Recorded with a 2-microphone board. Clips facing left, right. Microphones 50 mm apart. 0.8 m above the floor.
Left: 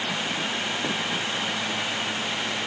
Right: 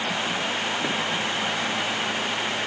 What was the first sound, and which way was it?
Only background noise.